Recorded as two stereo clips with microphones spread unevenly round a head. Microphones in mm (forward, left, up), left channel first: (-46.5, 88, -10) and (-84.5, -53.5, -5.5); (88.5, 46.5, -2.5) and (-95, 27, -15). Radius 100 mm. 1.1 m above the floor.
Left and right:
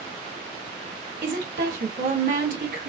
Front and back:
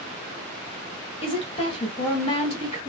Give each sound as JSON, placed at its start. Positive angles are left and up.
{"t": 1.2, "sound": "a woman speaking", "azimuth_deg": -60, "distance_m": 1.3}